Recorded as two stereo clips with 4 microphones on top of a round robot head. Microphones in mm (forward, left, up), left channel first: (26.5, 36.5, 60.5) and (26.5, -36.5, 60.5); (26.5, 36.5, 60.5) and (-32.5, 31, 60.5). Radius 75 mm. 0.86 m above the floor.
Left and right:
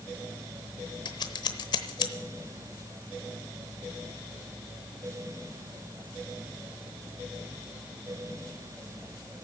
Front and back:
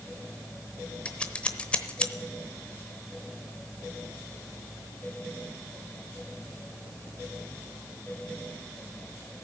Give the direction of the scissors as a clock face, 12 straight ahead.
10 o'clock.